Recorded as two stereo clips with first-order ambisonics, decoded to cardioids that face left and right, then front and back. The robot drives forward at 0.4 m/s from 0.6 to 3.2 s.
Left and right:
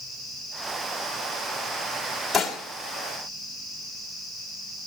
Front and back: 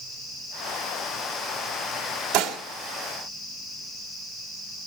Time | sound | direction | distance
2.3 | dishes clattering | 170° left | 1.6 m